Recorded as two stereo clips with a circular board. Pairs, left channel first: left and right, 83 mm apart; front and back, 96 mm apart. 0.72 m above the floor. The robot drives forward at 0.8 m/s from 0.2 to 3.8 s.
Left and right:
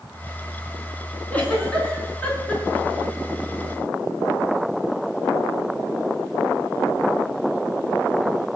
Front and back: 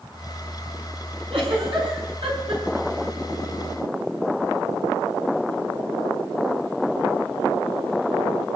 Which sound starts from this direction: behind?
A giggle, at 1.3 s.